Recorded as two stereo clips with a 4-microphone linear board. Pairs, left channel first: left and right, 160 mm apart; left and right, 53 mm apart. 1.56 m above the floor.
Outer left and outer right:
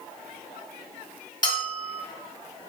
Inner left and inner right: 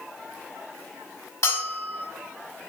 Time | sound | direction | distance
1.4 | a bell | 60° left (ahead or behind) | 1.6 m